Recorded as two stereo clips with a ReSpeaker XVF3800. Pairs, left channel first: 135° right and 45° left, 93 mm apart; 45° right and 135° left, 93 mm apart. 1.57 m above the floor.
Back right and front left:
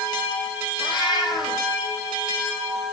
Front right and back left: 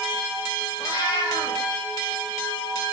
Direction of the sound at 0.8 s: 95° right.